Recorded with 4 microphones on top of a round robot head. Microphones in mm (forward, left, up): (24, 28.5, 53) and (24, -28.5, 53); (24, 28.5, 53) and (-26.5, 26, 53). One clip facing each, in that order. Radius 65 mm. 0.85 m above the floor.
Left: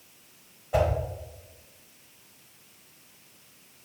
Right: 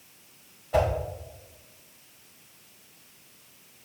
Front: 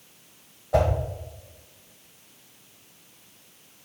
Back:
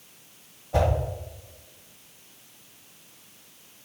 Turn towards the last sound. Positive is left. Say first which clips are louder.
# right 1 dB, front 2 dB
turn(degrees=10)